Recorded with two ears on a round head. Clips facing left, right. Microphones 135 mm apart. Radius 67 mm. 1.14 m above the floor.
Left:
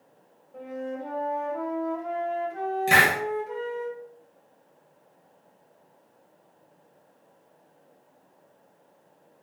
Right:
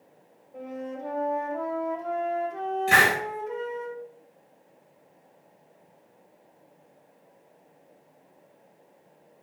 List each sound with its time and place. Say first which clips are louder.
0.5 s a flute: left 2 dB; 5° left (ahead or behind), 1.7 m
2.9 s a hiss: even; 65° left (ahead or behind), 2.5 m